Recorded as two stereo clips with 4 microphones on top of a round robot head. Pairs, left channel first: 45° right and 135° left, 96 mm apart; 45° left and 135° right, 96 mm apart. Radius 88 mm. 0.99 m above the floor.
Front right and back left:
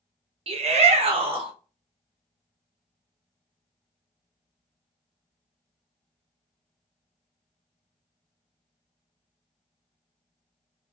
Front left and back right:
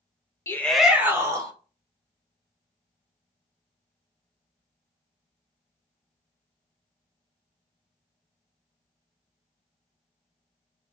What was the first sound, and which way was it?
A shout, 110° left.